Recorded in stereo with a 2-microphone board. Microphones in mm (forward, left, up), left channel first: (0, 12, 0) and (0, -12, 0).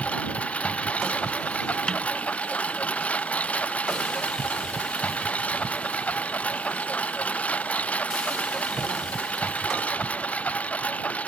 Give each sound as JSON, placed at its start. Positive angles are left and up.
{"t": 0.0, "sound": "a lawn mower", "side_deg": 65}
{"t": 1.9, "sound": "a snare drum", "side_deg": 35}